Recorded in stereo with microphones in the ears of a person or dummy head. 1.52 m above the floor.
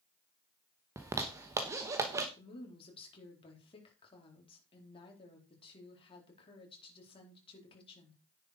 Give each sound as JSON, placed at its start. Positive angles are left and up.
{"t": 1.0, "sound": "a zipper", "side_deg": -15, "distance_m": 0.9}
{"t": 2.4, "sound": "a woman speaking", "side_deg": 35, "distance_m": 3.5}